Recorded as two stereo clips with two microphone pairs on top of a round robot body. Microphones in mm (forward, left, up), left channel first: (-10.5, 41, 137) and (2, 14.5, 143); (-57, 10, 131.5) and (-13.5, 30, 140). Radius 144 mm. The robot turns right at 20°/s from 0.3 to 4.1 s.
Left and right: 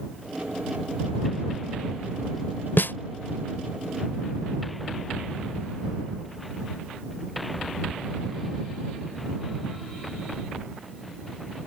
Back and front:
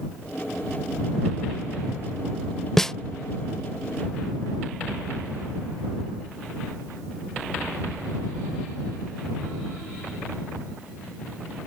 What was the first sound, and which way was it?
A snare drum, 120° left.